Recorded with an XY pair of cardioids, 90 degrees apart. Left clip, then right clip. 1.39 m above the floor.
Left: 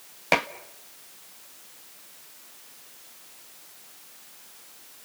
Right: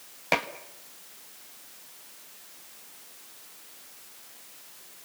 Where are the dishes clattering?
25° left, 1.2 m.